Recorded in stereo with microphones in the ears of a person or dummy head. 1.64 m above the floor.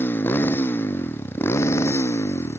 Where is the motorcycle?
15° left (ahead or behind).